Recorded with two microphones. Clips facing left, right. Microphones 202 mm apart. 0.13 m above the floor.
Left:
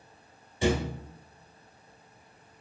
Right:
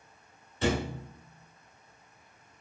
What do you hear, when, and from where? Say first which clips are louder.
0.6 s a thud: left 2 dB; 15° left (ahead or behind), 0.8 m